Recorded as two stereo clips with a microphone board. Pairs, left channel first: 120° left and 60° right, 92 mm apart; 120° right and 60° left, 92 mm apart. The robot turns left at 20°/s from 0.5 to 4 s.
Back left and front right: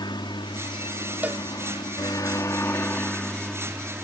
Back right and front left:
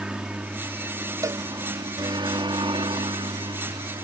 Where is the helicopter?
135° left; by 4.0 s 20° left.